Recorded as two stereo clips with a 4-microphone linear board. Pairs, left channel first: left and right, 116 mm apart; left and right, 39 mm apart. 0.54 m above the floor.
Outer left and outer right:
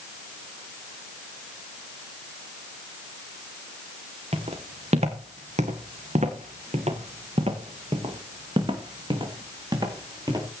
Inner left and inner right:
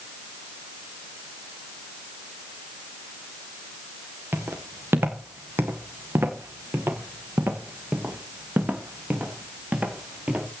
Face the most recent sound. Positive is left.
turn(degrees=-35)  # may be behind; listen again after turning